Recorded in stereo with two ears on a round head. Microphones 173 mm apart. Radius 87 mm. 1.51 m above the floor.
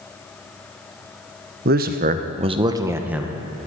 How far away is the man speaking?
About 0.6 m.